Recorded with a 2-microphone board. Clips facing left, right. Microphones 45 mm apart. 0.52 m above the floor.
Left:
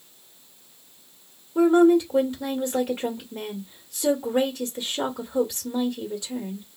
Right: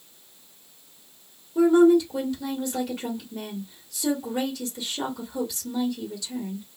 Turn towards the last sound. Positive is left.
turn(degrees=25)  # may be behind; listen again after turning